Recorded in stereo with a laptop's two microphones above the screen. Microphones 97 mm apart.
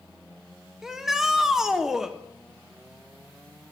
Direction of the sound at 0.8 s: 5° right (ahead or behind).